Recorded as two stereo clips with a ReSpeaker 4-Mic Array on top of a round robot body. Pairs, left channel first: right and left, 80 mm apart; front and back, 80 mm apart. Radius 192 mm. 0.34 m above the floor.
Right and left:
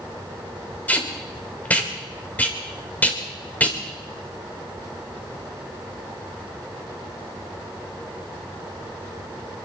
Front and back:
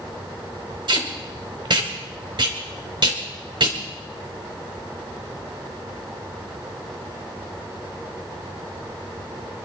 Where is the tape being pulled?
160° right, 3.5 m.